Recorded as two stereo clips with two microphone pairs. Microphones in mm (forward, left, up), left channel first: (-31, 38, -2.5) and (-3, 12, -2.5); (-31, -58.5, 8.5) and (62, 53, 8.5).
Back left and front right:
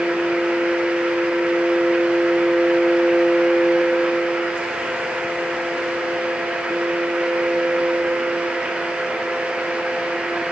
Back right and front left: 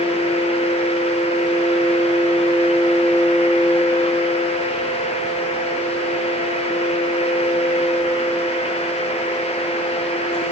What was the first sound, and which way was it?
Only background noise.